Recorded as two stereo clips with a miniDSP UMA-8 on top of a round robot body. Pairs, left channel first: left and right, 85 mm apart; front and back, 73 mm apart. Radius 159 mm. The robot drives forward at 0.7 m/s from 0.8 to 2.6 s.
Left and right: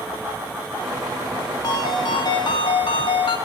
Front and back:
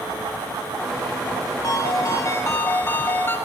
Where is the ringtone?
45° left, 2 m; by 3.4 s 60° left, 1.7 m.